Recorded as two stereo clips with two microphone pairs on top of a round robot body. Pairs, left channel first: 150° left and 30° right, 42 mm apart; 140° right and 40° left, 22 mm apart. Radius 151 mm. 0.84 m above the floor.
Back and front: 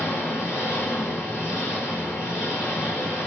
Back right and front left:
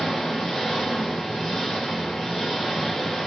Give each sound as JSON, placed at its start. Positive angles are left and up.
{"t": 0.0, "sound": "an engine running", "azimuth_deg": 160, "distance_m": 1.4}